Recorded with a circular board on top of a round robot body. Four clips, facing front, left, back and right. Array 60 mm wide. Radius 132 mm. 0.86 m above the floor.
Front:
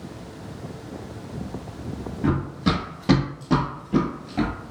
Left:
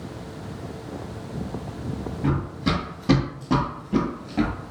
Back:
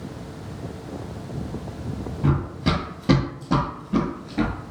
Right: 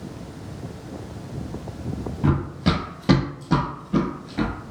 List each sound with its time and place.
2.2 s running footsteps: 110° right, 1.0 m; by 4.5 s 55° left, 1.1 m